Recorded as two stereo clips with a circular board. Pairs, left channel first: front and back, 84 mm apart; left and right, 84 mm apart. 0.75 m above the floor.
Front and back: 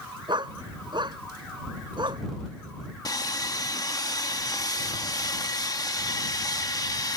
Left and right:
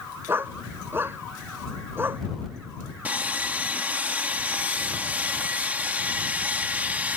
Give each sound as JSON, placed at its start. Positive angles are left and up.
{"t": 0.3, "sound": "a dog barking", "azimuth_deg": -155}
{"t": 3.0, "sound": "sawing", "azimuth_deg": -25}